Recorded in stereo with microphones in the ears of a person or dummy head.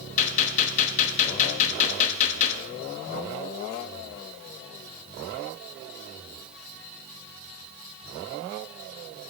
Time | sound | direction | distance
0.2 | a gunshot | 40° left (ahead or behind) | 0.6 m